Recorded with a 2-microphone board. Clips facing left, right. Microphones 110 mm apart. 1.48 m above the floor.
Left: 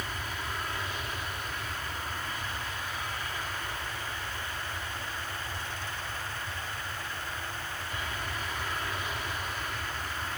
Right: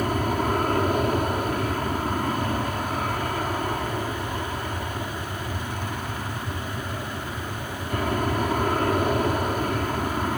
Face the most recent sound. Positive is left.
turn(degrees=-50)  # may be behind; listen again after turning